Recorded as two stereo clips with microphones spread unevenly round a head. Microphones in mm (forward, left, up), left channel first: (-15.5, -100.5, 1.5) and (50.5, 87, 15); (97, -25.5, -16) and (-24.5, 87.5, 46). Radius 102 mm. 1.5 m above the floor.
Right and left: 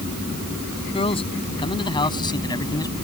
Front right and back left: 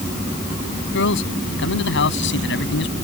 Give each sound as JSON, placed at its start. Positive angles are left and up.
{"t": 0.9, "sound": "a man speaking", "azimuth_deg": -45}